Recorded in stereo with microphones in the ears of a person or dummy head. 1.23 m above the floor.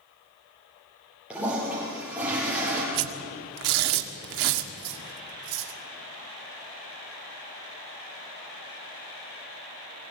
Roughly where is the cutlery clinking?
Right.